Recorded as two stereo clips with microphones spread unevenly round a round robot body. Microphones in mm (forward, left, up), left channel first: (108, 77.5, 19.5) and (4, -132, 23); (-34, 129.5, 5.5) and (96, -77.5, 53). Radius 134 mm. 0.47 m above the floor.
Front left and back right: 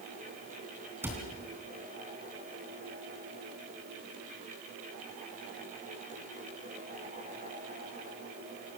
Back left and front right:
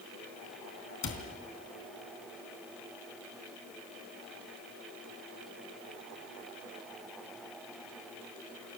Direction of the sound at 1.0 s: 160° left.